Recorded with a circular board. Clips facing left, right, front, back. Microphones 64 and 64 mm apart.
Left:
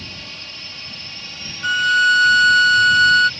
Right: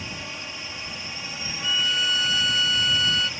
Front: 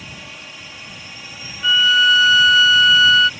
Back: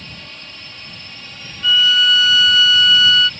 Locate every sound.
0.0 s a drone: 60° right
1.6 s a violin: 70° left